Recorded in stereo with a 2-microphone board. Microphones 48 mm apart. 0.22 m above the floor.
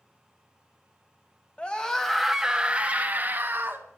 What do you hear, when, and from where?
1.6 s a scream: 20° left (ahead or behind), 1.1 m; by 3.9 s 50° right (ahead or behind), 1.7 m